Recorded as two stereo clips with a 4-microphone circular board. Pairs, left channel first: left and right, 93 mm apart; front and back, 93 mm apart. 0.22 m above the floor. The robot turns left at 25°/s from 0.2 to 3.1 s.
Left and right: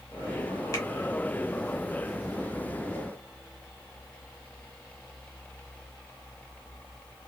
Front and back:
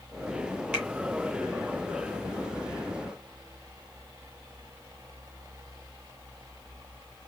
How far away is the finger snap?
About 1.5 m.